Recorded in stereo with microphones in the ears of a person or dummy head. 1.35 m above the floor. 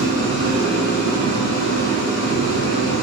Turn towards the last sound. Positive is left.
turn(degrees=60)  # may be behind; listen again after turning